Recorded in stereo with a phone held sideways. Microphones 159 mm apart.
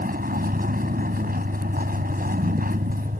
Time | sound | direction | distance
0.0 | a vehicle | 80° right | ?